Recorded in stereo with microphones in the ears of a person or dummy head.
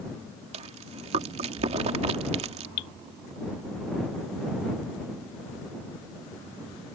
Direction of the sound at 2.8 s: 40° left (ahead or behind).